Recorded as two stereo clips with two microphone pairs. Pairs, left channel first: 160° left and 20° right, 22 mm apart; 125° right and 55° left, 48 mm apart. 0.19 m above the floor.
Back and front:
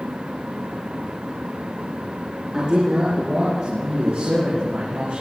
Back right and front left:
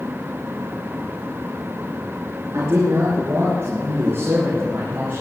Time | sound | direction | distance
2.5 | a man speaking | 35° left | 3.5 m